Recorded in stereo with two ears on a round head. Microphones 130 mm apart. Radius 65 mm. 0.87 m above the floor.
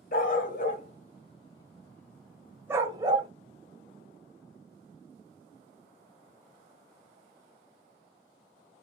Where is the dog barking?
65° left (ahead or behind), 1.3 m; by 3.3 s 35° right (ahead or behind), 1.0 m.